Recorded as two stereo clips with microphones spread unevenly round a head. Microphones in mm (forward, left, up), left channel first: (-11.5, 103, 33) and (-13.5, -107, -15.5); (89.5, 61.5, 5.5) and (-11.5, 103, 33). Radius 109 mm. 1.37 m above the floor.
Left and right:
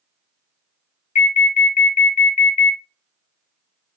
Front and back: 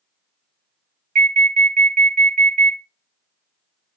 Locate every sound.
1.1 s an alarm: 150° left, 1.3 m